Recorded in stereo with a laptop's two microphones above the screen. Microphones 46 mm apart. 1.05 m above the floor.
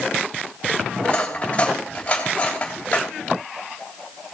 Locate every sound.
1.0 s cutlery clinking: 25° left (ahead or behind), 3.5 m